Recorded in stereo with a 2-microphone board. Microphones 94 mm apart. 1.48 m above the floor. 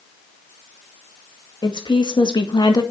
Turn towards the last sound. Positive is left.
turn(degrees=45)  # may be behind; listen again after turning